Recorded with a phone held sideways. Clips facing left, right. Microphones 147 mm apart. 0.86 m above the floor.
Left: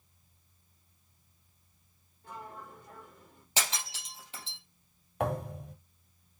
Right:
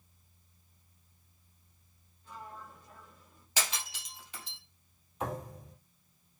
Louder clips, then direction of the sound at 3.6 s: Left 1 dB; 25° left (ahead or behind).